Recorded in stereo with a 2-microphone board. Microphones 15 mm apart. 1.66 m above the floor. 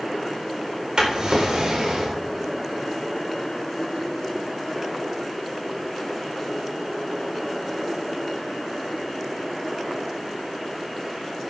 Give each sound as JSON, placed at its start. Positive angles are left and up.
{"t": 1.0, "sound": "a drawer", "side_deg": -70, "distance_m": 3.5}